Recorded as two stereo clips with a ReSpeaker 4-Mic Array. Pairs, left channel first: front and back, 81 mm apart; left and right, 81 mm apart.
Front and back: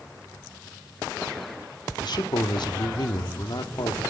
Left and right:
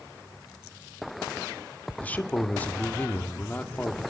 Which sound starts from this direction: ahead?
A man speaking, at 2.0 s.